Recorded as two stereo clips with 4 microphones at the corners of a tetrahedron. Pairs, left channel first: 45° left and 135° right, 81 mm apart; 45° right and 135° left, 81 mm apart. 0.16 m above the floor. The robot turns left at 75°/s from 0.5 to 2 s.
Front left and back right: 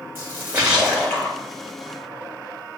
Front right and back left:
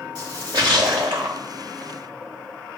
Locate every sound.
0.1 s a splash: 165° left, 3.5 m; by 1.4 s 100° left, 3.5 m